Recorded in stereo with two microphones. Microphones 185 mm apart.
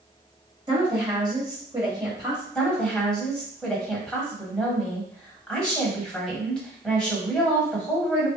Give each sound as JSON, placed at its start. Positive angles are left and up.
{"t": 0.7, "sound": "a woman speaking", "side_deg": -25, "distance_m": 1.6}
{"t": 2.5, "sound": "a woman speaking", "side_deg": 5, "distance_m": 1.7}